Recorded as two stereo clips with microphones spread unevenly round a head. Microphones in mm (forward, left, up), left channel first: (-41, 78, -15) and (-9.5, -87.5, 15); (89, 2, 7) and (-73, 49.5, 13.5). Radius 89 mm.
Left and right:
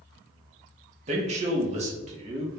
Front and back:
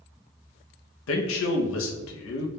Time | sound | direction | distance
1.1 | a man speaking | 25° right | 0.7 m